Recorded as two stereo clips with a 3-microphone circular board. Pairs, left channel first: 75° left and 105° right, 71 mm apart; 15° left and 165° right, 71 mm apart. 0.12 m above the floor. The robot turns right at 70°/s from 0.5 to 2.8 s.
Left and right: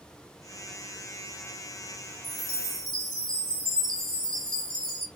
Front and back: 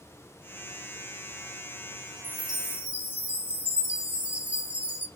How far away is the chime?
About 1.3 m.